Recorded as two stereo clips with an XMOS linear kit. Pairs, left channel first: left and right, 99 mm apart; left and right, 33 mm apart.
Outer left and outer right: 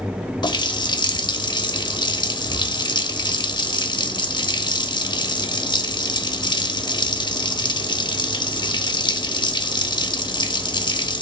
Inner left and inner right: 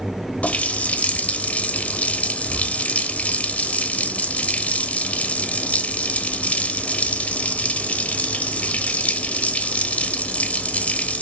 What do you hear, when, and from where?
0.4 s a running tap: 50° left (ahead or behind), 0.8 m